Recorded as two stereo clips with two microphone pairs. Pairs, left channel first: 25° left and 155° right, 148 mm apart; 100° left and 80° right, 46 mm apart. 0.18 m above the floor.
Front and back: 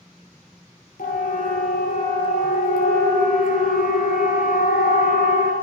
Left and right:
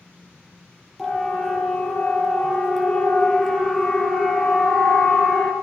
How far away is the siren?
About 6.5 m.